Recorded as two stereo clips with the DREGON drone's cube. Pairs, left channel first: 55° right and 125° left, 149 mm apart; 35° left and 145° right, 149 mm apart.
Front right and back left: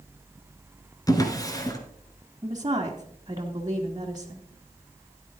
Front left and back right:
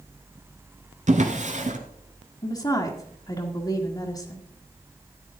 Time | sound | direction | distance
1.1 | a drawer | 120° right | 1.6 m
2.4 | a woman speaking | 80° left | 1.5 m